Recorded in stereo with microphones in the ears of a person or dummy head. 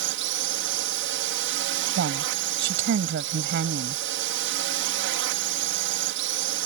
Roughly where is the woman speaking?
Right.